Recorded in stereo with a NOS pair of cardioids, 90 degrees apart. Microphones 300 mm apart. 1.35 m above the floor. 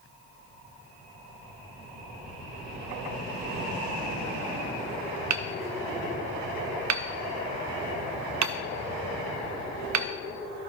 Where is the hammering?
70° right, 0.9 m.